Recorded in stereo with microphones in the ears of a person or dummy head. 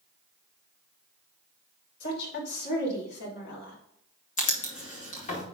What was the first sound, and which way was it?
A woman speaking, 60° left (ahead or behind).